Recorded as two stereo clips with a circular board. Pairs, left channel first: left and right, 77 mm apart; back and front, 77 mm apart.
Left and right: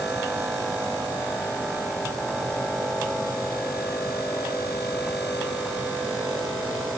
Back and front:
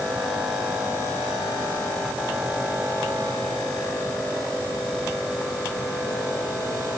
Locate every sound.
Only background noise.